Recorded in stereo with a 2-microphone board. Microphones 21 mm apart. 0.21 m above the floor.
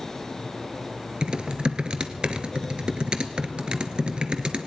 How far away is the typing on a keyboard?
About 1.2 m.